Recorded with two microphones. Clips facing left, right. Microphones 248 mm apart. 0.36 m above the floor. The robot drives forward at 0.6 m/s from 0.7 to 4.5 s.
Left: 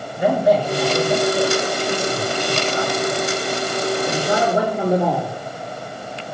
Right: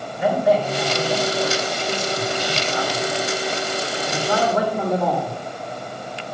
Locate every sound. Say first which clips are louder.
0.2 s a man speaking: left 2 dB; 45° left (ahead or behind), 5 m; by 5.3 s 30° left (ahead or behind), 6.5 m